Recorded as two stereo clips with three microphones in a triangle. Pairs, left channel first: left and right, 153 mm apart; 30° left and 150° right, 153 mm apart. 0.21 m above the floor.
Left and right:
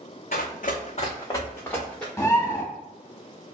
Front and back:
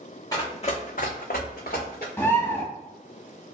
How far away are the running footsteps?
About 0.7 m.